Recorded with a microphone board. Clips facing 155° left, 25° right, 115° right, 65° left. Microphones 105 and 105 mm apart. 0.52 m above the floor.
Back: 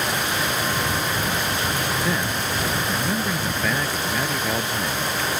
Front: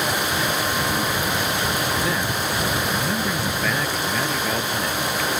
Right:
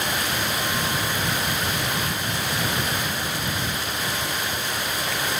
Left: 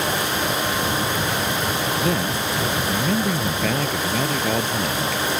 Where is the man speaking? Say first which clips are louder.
Front 1 dB, left 6 dB; 65° left; by 5.2 s 75° left.